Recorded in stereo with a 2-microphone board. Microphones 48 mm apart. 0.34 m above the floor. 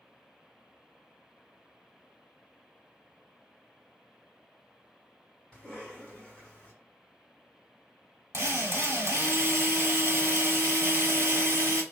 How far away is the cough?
About 1.9 m.